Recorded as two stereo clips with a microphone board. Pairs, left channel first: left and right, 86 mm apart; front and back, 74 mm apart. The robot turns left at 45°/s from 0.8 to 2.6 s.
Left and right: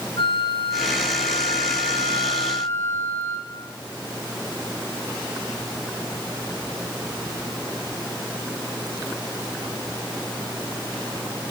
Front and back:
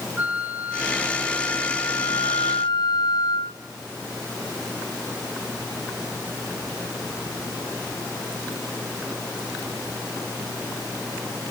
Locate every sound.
0.2 s a flute: 110° left, 4 m; by 3.6 s 25° left, 4 m